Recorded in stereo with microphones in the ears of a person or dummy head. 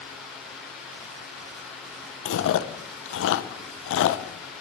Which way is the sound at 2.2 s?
80° left.